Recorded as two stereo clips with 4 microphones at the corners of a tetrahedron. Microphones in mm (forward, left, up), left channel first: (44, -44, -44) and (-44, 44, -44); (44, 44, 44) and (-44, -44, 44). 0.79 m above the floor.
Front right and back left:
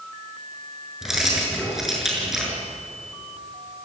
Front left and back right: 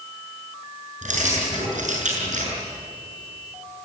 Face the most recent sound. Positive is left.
turn(degrees=-140)